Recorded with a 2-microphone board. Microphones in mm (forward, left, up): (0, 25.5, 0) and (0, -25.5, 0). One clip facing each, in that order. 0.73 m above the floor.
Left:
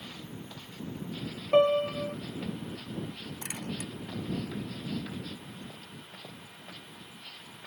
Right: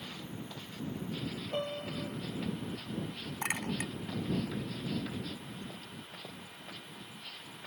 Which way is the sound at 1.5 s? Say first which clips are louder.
Left 16 dB; 65° left (ahead or behind).